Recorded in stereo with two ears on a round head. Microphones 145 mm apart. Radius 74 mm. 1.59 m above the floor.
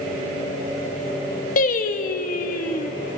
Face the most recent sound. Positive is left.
turn(degrees=55)  # may be behind; listen again after turning